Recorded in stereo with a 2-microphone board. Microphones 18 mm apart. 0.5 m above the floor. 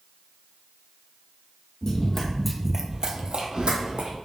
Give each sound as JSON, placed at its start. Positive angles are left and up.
{"t": 1.8, "sound": "running footsteps", "side_deg": 35, "distance_m": 1.0}